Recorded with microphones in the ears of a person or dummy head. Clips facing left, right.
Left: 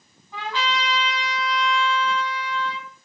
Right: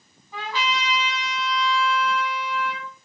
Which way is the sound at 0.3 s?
5° right (ahead or behind).